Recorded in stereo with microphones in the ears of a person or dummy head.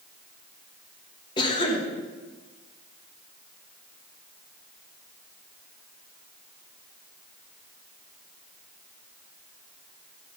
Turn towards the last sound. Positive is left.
turn(degrees=20)  # may be behind; listen again after turning